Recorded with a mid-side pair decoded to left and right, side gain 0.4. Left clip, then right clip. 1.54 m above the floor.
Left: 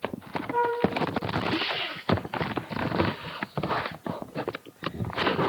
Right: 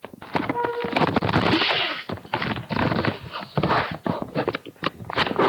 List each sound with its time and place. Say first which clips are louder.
0.5 s a flute: left 5 dB; 45° left, 2 m